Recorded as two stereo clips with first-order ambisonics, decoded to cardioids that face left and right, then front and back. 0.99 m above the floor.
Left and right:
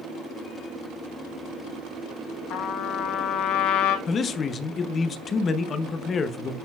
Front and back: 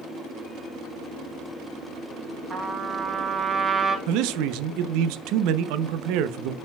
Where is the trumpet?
110° left, 1.1 m.